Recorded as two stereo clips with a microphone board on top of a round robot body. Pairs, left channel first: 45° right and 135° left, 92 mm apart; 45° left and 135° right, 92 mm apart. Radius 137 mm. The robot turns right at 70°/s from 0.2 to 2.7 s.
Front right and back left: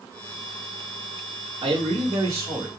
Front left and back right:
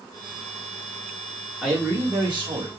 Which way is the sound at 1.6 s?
135° left.